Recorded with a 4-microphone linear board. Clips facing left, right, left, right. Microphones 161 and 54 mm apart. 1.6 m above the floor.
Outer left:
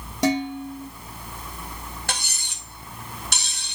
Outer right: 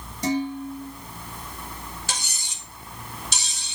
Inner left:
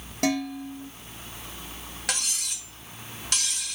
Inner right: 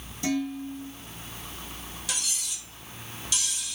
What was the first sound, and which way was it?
Dishes clattering, 75° left (ahead or behind).